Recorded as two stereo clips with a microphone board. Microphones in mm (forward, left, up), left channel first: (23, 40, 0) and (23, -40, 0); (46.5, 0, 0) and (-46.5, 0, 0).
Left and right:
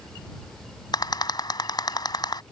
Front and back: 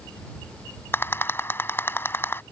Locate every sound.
0.9 s a rattle: 65° left